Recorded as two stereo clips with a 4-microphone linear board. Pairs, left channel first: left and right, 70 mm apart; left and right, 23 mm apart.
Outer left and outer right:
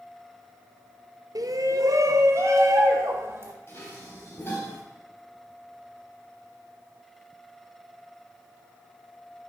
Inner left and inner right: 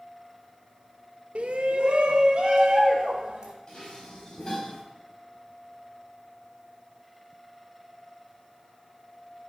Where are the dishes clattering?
30° left (ahead or behind), 5 m.